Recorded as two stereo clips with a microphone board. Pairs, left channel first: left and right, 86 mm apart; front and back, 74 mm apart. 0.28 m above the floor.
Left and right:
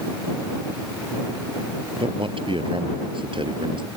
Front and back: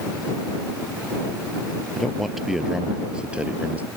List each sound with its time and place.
2.0 s a man speaking: 85° right; by 3.9 s 110° right